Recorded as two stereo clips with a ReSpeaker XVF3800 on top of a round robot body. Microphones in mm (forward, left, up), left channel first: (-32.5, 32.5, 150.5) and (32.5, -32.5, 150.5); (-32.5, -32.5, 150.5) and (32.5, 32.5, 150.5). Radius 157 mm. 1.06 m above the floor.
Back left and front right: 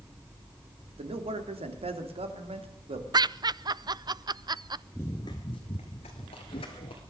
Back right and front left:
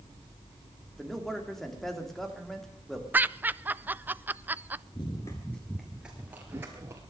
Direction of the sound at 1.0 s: 50° right.